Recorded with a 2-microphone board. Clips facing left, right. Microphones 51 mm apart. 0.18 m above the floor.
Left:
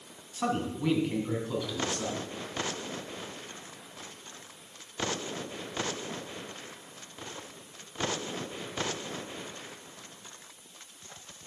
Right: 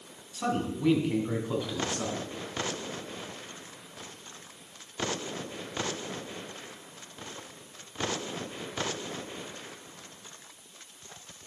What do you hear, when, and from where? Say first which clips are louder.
0.3 s a man speaking: even; 20° left (ahead or behind), 1.4 m; by 2.2 s 30° right (ahead or behind), 1.8 m